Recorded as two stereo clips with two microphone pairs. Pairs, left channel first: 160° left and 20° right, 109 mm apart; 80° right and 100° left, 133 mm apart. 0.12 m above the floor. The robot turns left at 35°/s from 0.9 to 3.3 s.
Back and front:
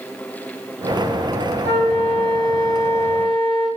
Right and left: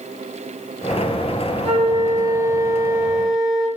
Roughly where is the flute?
Behind left.